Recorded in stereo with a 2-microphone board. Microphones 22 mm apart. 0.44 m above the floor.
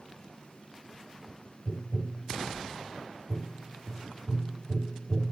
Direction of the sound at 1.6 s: 25° left (ahead or behind).